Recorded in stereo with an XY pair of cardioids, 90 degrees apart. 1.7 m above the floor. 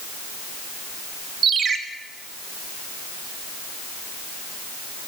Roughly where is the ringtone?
Ahead right.